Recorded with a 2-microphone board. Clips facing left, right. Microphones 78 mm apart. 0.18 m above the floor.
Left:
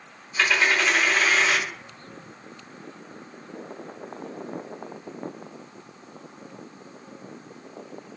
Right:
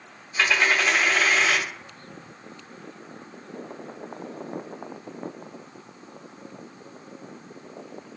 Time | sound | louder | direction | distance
0.4 | a dropped coin | even | 10° right (ahead or behind) | 1.7 m